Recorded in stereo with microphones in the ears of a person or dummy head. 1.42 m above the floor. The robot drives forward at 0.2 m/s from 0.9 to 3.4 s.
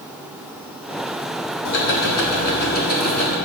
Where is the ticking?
55° left (ahead or behind), 0.8 m; by 3.4 s 40° left (ahead or behind), 1.0 m.